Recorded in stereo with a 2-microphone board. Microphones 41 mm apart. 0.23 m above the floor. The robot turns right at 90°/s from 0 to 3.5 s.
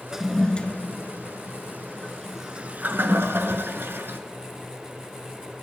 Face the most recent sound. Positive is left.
turn(degrees=-70)  # may be behind; listen again after turning